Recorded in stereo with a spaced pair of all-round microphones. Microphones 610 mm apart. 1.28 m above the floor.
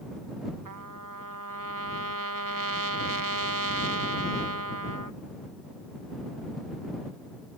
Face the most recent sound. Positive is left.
turn(degrees=-30)  # may be behind; listen again after turning